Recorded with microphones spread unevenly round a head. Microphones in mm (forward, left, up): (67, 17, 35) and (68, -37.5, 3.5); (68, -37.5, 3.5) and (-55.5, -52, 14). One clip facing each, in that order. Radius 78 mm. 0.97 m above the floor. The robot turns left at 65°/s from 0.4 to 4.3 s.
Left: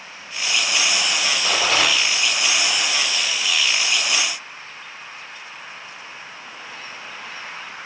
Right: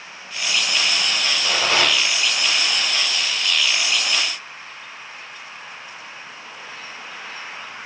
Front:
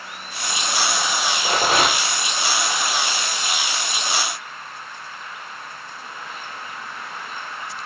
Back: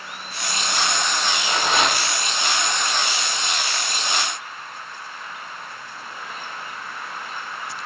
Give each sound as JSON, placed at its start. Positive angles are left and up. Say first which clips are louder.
{"t": 1.4, "sound": "a rattle", "louder": "even, front 3 dB", "azimuth_deg": 10, "distance_m": 6.5}